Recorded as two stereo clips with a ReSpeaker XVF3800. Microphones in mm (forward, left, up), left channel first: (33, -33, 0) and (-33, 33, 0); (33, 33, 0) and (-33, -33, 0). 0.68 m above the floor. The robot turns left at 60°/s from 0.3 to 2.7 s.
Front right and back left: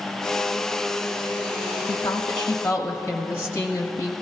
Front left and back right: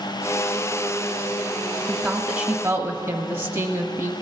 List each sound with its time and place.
1.9 s a woman speaking: 40° right, 1.1 m; by 4.1 s 90° right, 1.1 m